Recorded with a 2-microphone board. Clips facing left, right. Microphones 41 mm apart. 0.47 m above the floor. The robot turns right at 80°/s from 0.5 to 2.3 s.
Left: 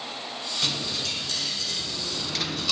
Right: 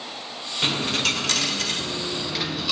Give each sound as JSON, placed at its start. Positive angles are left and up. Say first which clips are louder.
{"t": 0.6, "sound": "a dropped coin", "louder": "right 8 dB", "azimuth_deg": -145, "distance_m": 1.0}